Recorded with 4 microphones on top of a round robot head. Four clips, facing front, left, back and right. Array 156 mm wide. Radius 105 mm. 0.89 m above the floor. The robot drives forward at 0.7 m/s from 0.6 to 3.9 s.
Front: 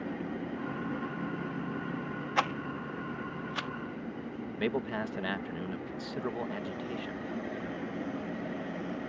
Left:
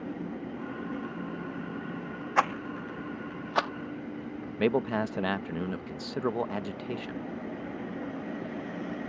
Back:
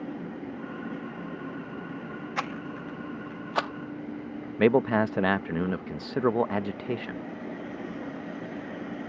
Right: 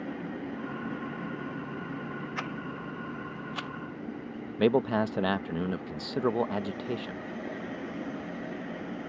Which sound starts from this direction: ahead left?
A rattle, at 2.4 s.